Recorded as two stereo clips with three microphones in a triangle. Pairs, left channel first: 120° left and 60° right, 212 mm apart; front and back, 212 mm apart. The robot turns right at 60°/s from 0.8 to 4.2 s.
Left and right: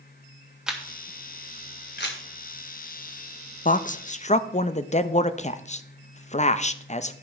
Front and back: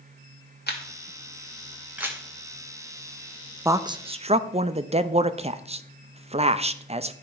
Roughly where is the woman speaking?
Left.